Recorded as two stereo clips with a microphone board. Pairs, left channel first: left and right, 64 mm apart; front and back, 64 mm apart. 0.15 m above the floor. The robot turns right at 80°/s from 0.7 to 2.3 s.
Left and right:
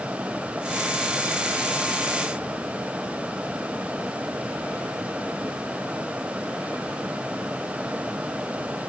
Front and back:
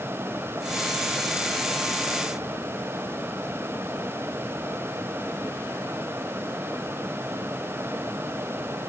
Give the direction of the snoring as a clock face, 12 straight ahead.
I don't hear snoring.